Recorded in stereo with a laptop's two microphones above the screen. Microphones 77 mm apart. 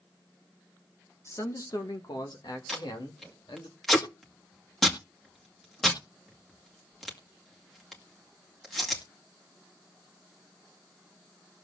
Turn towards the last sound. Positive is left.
turn(degrees=0)  # may be behind; listen again after turning